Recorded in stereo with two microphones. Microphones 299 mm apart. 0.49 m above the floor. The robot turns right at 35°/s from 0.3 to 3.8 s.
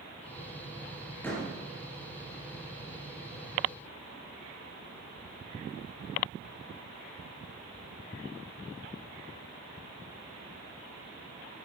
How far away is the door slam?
About 7 m.